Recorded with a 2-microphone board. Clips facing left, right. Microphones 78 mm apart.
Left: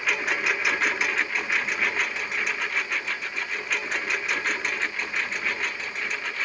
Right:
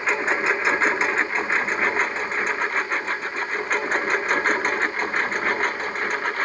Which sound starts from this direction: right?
A lawn mower, at 0.0 s.